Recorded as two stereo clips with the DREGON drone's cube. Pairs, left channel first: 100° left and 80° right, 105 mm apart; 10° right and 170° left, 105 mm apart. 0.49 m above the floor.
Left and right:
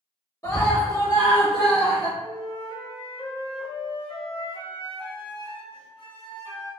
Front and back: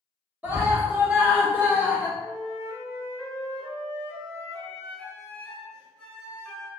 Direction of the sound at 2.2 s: 75° left.